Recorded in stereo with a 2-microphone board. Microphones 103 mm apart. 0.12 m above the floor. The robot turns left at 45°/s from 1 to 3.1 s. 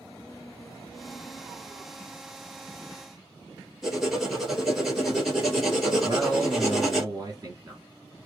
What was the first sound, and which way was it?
Writing, centre (ahead or behind).